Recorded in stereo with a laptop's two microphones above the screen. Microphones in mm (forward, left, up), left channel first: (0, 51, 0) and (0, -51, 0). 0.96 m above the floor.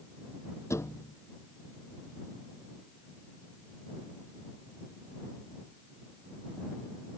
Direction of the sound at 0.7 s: 30° left (ahead or behind).